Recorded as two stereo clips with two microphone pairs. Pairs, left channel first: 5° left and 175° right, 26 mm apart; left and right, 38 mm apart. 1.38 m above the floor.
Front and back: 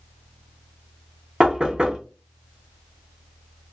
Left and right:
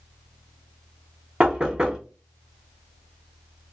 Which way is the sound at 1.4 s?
150° right.